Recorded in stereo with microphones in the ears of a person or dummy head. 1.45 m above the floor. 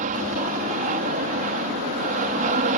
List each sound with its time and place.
0.0 s an aircraft: 45° right (ahead or behind)